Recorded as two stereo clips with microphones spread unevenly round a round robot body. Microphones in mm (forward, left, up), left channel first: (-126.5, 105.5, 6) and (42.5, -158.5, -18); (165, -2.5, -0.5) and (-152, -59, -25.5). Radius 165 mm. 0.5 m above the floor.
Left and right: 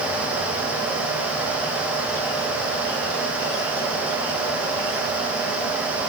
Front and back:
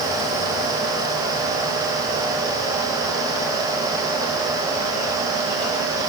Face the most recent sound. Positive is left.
No sound to turn to.